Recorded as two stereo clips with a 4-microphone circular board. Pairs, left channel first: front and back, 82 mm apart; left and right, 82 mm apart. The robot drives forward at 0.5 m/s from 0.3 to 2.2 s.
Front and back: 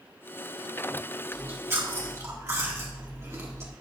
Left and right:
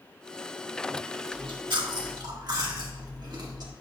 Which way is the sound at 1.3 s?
115° right.